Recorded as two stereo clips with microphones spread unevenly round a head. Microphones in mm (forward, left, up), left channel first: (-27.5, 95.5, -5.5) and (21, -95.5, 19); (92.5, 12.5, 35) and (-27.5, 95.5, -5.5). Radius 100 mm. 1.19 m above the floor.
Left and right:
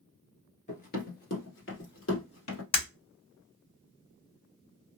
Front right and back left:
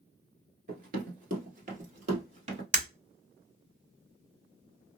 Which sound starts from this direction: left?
Breaking glass, at 2.7 s.